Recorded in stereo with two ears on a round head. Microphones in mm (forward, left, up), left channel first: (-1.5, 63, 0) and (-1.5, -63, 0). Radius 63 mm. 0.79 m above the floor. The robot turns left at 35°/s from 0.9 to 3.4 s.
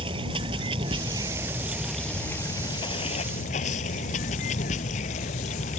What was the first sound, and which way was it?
Running water, 145° right.